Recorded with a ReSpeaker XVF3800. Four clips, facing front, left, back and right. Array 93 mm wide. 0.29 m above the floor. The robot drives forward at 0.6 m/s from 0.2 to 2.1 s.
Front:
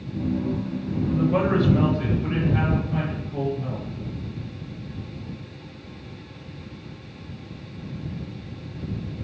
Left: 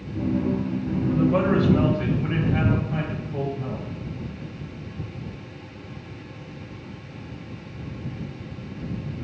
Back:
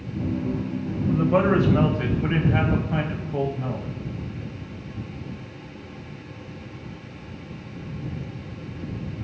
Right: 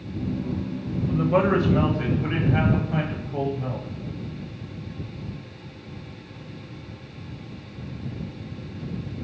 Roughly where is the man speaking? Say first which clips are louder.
Even, back 2 dB; behind right.